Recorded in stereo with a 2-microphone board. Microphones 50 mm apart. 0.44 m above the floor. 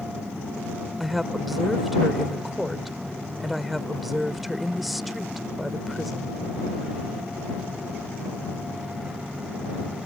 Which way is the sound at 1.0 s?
Centre (ahead or behind).